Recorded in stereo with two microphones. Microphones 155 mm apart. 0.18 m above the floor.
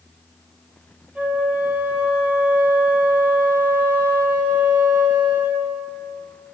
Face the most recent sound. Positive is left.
turn(degrees=-10)  # may be behind; listen again after turning